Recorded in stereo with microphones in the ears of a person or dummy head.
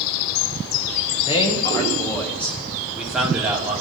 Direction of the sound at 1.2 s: 35° left (ahead or behind).